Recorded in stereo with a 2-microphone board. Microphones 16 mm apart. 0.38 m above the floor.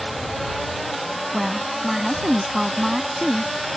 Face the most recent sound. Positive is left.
turn(degrees=-15)  # may be behind; listen again after turning